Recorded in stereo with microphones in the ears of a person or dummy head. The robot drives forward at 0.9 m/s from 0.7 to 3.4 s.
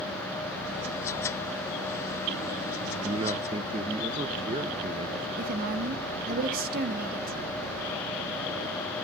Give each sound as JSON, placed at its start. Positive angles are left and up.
{"t": 2.8, "sound": "a man speaking", "side_deg": -35, "distance_m": 0.5}
{"t": 5.4, "sound": "a woman speaking", "side_deg": -55, "distance_m": 1.3}